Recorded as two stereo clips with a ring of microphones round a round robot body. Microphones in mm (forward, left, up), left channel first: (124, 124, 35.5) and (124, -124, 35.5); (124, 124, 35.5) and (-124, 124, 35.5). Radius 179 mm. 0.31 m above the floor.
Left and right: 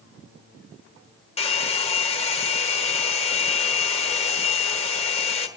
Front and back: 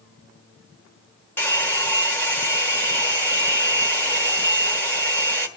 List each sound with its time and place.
1.4 s a hair dryer: 70° left, 1.3 m